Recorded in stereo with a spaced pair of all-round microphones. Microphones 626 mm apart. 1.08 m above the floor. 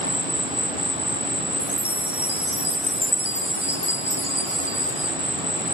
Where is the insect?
10° right (ahead or behind), 1.6 m.